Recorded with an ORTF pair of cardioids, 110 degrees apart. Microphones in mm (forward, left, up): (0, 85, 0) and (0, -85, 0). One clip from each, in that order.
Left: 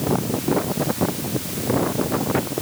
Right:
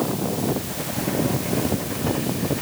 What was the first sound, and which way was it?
Only background noise.